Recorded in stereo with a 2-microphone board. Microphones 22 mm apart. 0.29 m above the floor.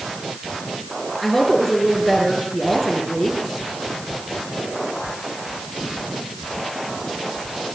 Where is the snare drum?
I don't hear a snare drum.